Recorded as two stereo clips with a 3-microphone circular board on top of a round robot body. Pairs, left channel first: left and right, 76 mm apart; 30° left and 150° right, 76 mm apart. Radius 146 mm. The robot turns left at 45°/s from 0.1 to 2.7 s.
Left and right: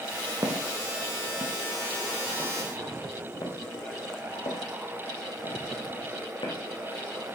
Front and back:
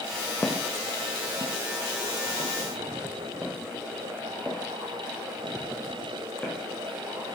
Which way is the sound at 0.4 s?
35° right.